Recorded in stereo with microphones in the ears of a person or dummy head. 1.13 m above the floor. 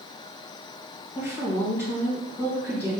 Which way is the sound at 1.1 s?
5° left (ahead or behind).